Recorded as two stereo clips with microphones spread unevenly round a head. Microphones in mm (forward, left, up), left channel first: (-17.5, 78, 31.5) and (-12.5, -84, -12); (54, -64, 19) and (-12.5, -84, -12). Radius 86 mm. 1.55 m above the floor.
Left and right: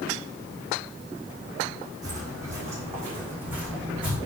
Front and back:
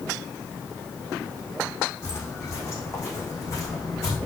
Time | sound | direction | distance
2.0 | footsteps | 15° right | 4 m